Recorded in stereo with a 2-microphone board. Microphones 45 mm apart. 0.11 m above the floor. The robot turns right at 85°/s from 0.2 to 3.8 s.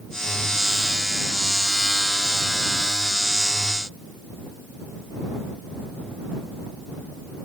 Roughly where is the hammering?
No hammering in this recording.